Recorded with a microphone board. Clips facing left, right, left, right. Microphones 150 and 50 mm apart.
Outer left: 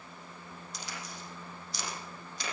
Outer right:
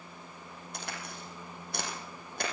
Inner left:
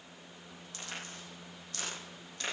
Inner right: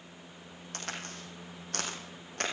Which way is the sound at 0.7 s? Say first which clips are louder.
Outer right 3 dB, inner right 4 dB; 60° right (ahead or behind).